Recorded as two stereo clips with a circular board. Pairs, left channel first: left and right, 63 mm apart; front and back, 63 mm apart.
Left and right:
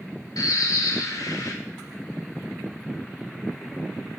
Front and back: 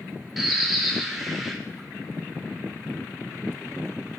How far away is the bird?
About 0.6 m.